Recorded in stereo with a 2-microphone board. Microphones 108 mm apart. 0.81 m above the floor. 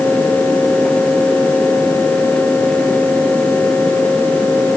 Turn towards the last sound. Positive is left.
No sound to turn to.